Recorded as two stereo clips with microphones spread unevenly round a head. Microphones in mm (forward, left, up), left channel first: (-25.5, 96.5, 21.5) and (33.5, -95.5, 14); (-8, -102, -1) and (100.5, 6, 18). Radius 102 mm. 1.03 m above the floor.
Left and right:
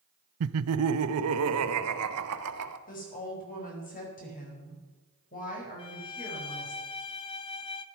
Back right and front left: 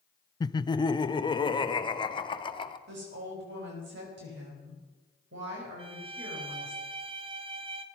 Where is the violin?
60° left, 0.6 m.